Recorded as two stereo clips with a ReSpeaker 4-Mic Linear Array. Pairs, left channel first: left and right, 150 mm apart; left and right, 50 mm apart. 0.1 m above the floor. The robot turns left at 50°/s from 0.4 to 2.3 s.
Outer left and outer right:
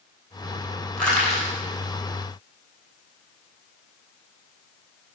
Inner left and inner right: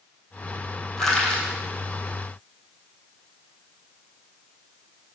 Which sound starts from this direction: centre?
Crushing, at 1.0 s.